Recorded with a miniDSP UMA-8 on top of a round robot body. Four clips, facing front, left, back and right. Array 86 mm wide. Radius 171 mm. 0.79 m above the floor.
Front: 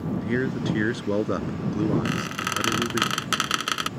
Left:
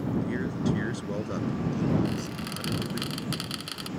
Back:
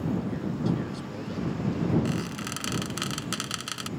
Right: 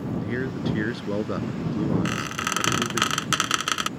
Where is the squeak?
55° right.